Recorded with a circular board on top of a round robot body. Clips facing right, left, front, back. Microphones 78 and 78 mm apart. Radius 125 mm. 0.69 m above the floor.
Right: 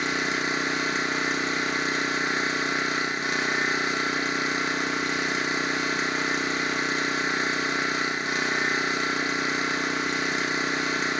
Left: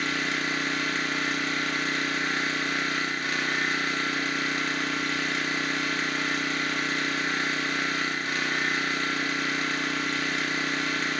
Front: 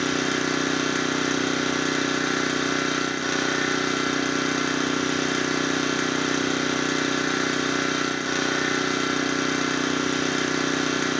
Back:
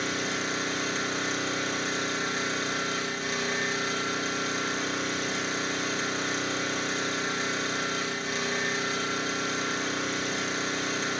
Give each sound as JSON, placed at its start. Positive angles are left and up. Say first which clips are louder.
{"t": 0.0, "sound": "an engine running", "louder": "right 2 dB, front 7 dB", "azimuth_deg": -20, "distance_m": 1.5}